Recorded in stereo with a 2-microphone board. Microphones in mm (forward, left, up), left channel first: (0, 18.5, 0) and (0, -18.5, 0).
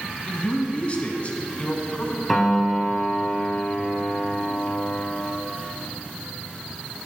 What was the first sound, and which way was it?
A man speaking, 35° left (ahead or behind).